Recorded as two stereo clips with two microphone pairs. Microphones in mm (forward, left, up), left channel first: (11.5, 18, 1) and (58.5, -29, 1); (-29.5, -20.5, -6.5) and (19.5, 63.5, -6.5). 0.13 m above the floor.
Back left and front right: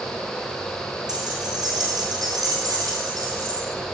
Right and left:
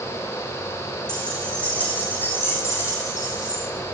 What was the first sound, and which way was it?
Keys jangling, 40° right.